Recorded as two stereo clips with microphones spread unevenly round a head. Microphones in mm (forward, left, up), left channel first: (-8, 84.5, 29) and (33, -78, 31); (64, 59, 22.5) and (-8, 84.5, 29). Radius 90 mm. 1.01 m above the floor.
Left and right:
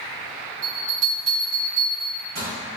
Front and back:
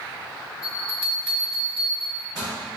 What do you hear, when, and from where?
0.6 s a bell: 120° right, 1.9 m